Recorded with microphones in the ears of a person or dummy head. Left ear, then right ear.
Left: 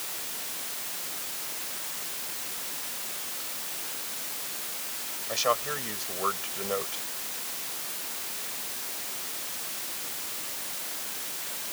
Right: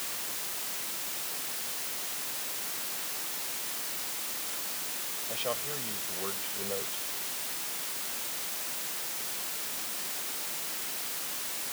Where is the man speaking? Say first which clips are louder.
Left 8 dB; 60° left (ahead or behind).